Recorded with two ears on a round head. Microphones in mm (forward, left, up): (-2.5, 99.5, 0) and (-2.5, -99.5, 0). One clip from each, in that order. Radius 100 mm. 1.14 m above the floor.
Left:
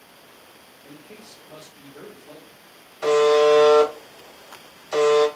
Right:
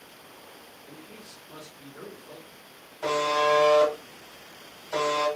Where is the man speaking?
30° left (ahead or behind), 1.4 m.